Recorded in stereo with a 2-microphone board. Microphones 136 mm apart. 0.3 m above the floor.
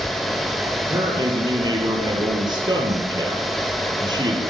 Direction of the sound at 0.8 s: 30° right (ahead or behind).